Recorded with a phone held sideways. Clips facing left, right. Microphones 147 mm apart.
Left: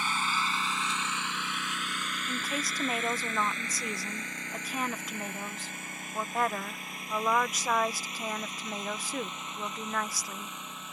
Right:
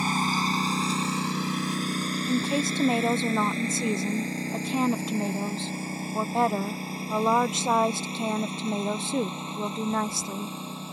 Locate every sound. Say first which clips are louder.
0.0 s a lawn mower: right 6 dB; 40° right (ahead or behind); by 10.9 s 30° right (ahead or behind)
2.3 s a woman speaking: right 10 dB; 25° right (ahead or behind)